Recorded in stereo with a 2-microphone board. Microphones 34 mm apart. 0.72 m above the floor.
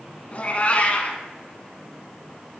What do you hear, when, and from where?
0.3 s a cat meowing: 40° left (ahead or behind), 1.1 m